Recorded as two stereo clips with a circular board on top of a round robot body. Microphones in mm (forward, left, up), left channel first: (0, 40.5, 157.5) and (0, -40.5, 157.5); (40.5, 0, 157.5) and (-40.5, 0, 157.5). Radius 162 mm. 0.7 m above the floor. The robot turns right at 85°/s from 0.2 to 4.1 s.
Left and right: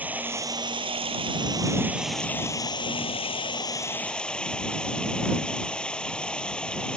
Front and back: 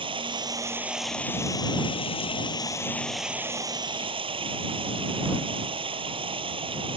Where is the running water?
160° right; by 7.0 s 170° left.